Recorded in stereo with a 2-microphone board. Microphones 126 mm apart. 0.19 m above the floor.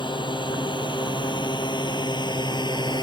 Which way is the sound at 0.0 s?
40° left (ahead or behind).